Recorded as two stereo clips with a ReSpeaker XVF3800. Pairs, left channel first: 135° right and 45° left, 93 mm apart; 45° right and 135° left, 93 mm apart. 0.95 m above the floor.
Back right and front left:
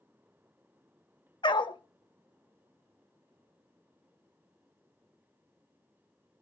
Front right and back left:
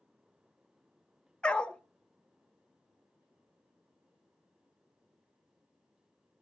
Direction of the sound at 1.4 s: 120° right.